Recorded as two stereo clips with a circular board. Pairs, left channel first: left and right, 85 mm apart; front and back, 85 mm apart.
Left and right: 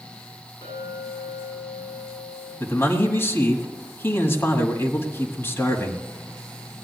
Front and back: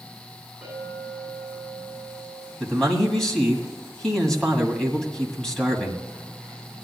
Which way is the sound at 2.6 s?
75° left.